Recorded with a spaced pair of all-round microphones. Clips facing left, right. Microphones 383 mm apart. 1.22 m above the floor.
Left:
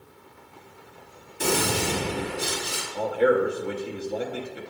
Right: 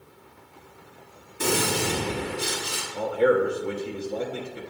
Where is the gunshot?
15° right (ahead or behind), 2 m.